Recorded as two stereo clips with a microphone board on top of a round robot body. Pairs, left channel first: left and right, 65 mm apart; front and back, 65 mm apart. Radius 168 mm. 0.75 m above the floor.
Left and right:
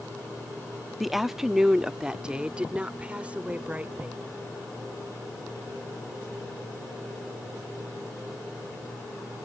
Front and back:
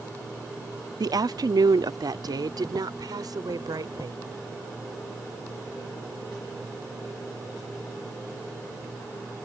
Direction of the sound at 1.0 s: 175° right.